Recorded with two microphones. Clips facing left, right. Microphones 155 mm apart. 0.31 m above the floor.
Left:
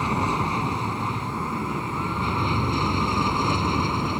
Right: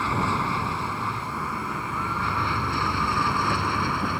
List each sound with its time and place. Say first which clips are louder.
0.0 s an aircraft: left 1 dB; 15° left (ahead or behind); by 4.2 s 20° left (ahead or behind)